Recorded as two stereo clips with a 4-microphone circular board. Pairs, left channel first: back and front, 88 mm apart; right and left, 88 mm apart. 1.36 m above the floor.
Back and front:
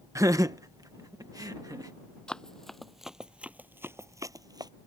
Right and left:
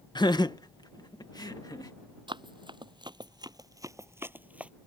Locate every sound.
0.1 s laughter: 55° right; by 1.9 s 45° right
2.3 s running footsteps: 100° left; by 4.7 s 15° left